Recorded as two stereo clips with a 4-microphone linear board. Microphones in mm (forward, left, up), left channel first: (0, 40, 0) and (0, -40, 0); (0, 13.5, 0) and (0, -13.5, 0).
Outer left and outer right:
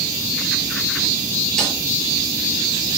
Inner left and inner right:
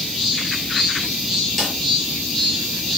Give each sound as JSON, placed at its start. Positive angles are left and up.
{"t": 1.6, "sound": "a snare drum", "side_deg": 5, "distance_m": 6.5}